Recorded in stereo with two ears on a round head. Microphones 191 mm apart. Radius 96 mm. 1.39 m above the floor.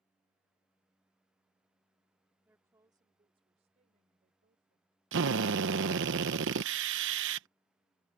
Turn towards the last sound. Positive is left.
turn(degrees=-60)  # may be behind; listen again after turning